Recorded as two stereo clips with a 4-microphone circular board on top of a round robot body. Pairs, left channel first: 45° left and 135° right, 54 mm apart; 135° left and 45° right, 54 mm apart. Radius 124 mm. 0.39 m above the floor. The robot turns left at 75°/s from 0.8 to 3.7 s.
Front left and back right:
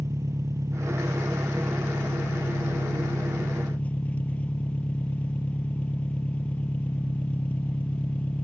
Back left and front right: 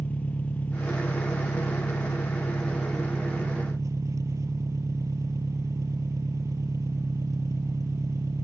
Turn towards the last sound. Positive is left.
turn(degrees=-20)